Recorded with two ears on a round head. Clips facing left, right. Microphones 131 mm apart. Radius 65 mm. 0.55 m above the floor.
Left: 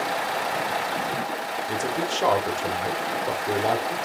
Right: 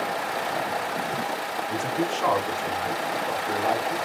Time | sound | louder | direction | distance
1.7 | a man speaking | right 1 dB | 40° left (ahead or behind) | 1.4 m